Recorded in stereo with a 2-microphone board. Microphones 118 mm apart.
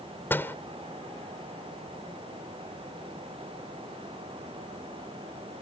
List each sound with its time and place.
0.3 s a door slam: 15° left (ahead or behind)